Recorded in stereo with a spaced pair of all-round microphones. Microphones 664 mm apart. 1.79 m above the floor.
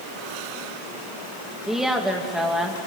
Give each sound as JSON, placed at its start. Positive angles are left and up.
{"t": 1.7, "sound": "a woman speaking", "side_deg": 0, "distance_m": 2.5}